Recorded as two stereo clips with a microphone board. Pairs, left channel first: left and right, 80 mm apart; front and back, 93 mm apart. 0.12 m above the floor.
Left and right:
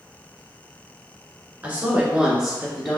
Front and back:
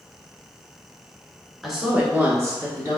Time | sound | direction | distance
1.6 | a woman speaking | 90° right | 1.2 m